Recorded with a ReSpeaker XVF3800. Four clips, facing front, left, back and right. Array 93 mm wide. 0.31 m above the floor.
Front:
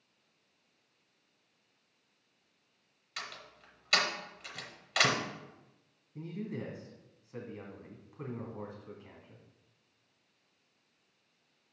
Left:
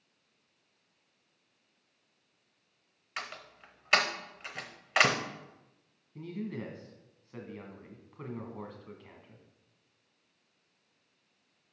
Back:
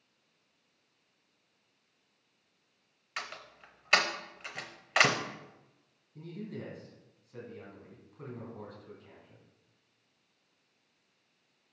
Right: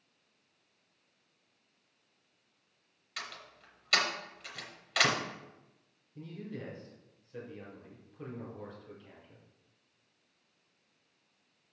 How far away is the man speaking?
About 2 m.